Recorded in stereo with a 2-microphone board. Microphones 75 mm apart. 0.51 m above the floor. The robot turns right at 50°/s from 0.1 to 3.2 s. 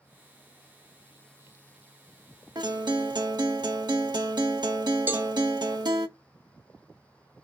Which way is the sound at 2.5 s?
110° right.